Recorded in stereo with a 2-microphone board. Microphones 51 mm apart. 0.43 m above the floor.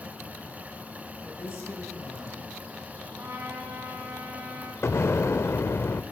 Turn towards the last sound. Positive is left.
turn(degrees=60)  # may be behind; listen again after turning